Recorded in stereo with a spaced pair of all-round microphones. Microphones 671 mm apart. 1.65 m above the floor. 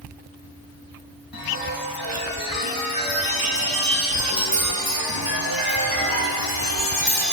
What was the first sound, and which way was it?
A chime, 30° left (ahead or behind).